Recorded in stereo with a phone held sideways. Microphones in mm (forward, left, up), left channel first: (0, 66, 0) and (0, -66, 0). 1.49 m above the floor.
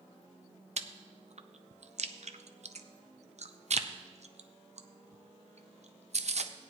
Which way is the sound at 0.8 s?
55° right (ahead or behind).